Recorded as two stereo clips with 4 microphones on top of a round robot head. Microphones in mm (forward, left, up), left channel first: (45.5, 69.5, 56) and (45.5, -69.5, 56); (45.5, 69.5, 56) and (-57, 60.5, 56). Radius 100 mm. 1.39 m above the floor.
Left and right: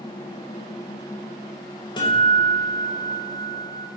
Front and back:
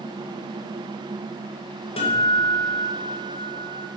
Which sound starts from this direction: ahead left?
A guitar, at 2.0 s.